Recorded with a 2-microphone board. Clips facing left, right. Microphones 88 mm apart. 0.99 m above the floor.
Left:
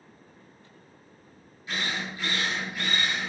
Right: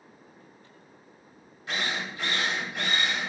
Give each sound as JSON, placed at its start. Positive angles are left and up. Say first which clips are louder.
{"t": 1.7, "sound": "a drill", "louder": "right 1 dB", "side_deg": -75, "distance_m": 1.3}